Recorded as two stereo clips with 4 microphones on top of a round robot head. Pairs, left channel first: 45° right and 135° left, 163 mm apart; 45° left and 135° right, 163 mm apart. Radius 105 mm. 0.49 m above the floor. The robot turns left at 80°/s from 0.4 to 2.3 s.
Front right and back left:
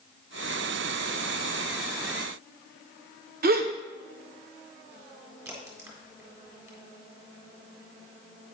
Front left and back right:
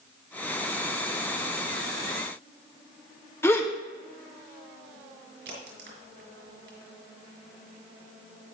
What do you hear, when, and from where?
3.4 s a gasp: 120° left, 1.1 m
5.5 s a crack: 155° right, 4 m